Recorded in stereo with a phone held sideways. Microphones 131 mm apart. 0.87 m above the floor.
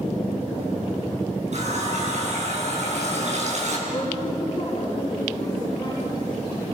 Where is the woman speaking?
35° left (ahead or behind), 9.5 m.